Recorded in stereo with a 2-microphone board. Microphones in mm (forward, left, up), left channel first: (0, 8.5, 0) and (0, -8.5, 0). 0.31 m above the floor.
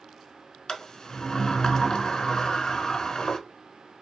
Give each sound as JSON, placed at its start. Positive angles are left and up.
{"t": 0.7, "sound": "a sliding door", "side_deg": 40, "distance_m": 0.6}